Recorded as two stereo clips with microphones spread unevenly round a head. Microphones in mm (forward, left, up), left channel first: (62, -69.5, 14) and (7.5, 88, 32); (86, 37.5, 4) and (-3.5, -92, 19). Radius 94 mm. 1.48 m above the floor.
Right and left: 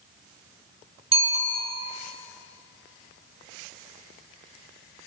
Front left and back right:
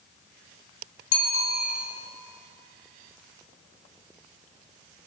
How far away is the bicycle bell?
About 4.5 m.